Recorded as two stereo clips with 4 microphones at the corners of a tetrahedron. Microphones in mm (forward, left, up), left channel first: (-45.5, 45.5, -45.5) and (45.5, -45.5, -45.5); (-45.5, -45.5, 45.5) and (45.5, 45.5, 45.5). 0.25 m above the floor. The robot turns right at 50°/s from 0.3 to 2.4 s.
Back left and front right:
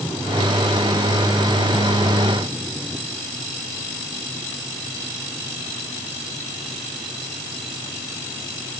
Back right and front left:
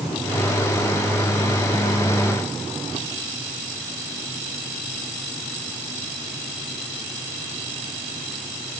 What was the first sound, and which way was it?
Only background noise.